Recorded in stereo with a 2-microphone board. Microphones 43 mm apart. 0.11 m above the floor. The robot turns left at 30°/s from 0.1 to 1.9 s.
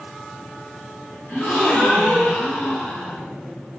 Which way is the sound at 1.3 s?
35° left (ahead or behind).